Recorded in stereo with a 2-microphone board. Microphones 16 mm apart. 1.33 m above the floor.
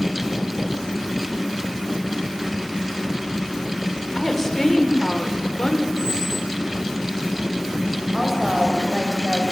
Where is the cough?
I don't hear a cough.